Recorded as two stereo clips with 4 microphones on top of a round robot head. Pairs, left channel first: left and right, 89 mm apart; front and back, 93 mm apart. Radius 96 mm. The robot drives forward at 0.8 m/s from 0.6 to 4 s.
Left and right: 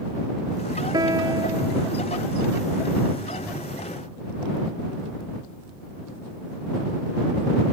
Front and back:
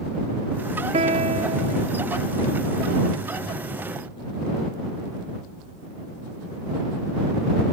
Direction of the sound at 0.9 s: 150° right.